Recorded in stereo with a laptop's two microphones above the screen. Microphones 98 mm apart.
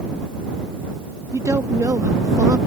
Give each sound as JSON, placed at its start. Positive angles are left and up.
{"t": 1.3, "sound": "a woman speaking", "side_deg": -35}